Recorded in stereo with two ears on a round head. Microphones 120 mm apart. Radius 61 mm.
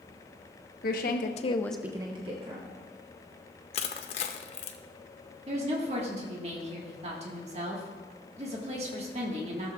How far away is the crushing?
About 0.7 m.